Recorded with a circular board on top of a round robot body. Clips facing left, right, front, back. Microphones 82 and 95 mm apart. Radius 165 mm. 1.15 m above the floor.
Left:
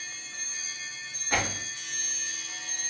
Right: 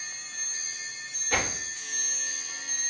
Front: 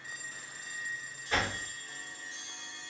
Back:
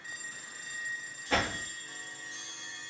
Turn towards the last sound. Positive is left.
turn(degrees=160)